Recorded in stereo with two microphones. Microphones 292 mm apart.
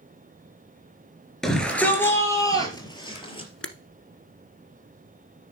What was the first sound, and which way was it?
A shout, centre (ahead or behind).